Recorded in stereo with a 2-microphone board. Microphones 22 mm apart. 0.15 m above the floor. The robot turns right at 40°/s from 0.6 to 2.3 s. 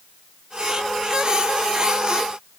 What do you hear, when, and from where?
Only background noise.